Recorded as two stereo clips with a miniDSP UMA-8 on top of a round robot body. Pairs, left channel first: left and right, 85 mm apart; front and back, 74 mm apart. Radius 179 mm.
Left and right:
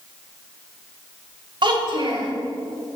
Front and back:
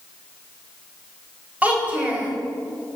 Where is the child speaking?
110° right, 2.5 m.